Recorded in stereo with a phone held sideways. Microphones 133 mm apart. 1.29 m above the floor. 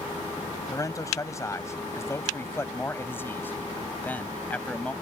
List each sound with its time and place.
0.7 s a man speaking: 25° left (ahead or behind); by 4.9 s 10° left (ahead or behind)